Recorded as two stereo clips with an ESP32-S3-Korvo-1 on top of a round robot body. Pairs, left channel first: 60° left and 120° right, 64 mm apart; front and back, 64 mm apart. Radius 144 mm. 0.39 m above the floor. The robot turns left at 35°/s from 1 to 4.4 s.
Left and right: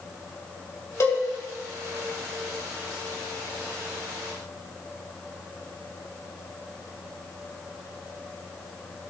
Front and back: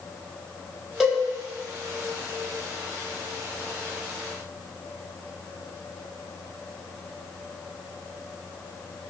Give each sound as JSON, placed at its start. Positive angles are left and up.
{"t": 1.0, "sound": "a cowbell", "azimuth_deg": 90, "distance_m": 3.5}